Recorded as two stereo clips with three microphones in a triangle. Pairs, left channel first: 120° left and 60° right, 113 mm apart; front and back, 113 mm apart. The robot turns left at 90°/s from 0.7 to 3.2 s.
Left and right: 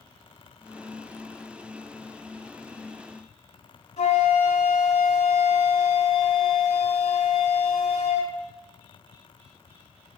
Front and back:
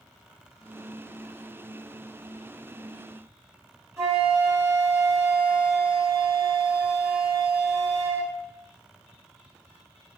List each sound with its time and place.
4.0 s a flute: 115° left, 1.2 m